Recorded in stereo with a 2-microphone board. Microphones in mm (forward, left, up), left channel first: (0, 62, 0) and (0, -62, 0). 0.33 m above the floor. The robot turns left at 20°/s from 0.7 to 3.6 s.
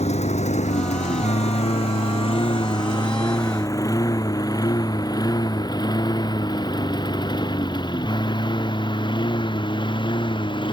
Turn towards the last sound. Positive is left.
turn(degrees=40)  # may be behind; listen again after turning